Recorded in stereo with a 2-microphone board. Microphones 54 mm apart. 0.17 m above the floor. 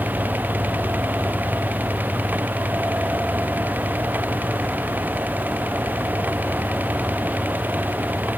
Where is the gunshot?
I don't hear a gunshot.